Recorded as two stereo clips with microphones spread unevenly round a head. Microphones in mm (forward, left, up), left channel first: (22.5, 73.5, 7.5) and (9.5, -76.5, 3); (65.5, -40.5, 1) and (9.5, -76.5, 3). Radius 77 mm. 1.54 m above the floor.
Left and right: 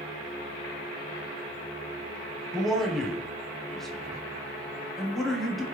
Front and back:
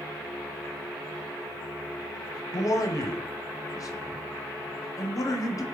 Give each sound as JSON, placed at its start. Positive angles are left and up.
{"t": 2.5, "sound": "a man speaking", "azimuth_deg": -5, "distance_m": 0.7}